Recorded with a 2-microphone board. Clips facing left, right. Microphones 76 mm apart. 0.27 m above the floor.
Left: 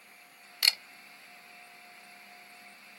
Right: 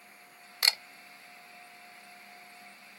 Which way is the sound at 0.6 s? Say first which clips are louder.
Right 1 dB; 30° right (ahead or behind).